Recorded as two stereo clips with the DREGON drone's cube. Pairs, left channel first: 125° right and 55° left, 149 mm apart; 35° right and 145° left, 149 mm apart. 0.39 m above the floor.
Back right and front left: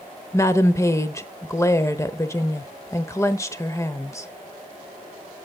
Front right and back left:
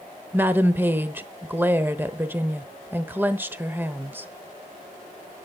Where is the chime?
I don't hear a chime.